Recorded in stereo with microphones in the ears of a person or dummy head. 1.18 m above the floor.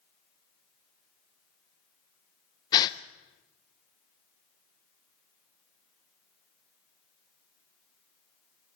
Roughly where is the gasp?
Left.